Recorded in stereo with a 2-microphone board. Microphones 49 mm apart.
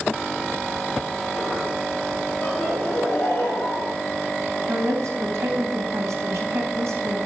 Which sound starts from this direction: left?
Laughter, at 2.4 s.